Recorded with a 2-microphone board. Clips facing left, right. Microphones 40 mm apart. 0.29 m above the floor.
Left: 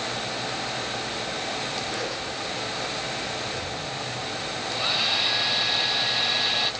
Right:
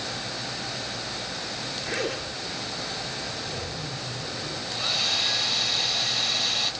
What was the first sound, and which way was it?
A zipper, 55° right (ahead or behind).